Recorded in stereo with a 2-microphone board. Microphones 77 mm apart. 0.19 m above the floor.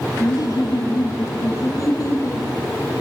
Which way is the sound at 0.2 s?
50° left (ahead or behind).